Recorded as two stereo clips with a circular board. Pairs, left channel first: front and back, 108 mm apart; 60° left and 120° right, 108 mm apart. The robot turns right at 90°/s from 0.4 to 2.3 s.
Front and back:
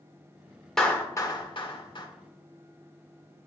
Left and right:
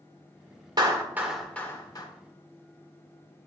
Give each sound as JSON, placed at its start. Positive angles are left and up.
{"t": 0.8, "sound": "a clap", "azimuth_deg": -85, "distance_m": 1.7}